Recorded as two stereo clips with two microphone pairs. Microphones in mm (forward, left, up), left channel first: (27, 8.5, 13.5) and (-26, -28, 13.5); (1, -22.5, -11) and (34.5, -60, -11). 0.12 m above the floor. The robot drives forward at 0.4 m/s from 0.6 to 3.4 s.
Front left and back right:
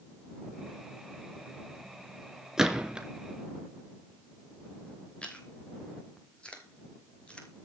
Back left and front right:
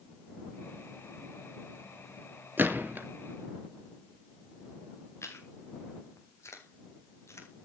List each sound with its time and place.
2.6 s a gunshot: 70° right, 2.5 m; by 3.1 s 75° right, 2.5 m
5.2 s chewing: 110° left, 3 m